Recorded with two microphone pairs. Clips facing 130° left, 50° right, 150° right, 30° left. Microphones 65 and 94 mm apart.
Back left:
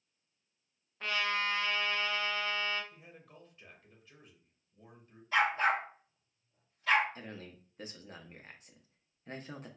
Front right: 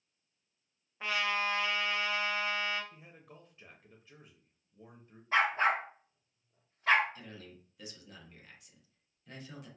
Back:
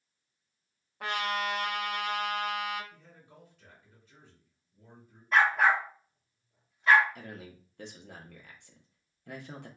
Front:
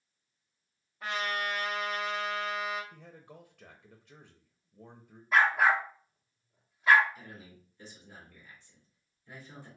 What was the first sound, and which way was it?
A trumpet, 125° right.